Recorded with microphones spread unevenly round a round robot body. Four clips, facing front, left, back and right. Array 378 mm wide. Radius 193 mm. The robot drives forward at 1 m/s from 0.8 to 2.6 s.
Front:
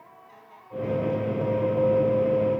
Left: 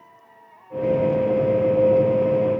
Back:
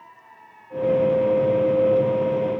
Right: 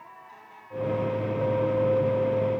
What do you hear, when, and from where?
Only background noise.